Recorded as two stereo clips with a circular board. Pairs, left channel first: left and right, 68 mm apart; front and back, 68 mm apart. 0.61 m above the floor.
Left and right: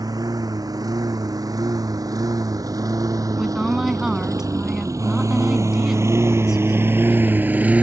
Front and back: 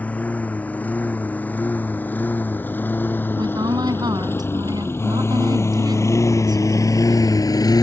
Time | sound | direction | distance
0.0 | a lawn mower | 70° right | ?
3.4 | a woman speaking | 175° right | ?